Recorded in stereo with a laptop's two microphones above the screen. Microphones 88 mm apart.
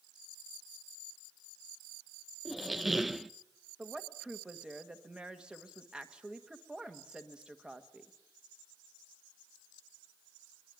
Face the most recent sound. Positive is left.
turn(degrees=-10)  # may be behind; listen again after turning